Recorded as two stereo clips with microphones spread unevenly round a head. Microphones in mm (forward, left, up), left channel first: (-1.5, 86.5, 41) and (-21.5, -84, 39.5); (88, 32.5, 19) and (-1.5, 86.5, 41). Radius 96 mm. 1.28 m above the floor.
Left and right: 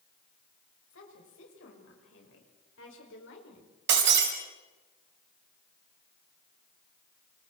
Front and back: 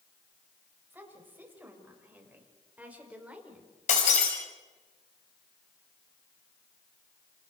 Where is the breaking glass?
70° right, 4.5 m.